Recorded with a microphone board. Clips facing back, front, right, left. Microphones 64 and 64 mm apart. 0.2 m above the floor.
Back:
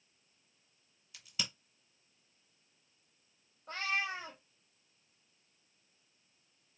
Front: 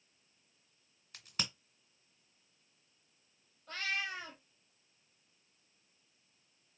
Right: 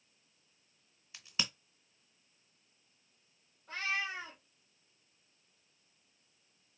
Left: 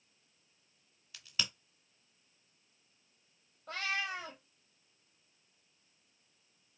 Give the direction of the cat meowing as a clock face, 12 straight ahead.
8 o'clock.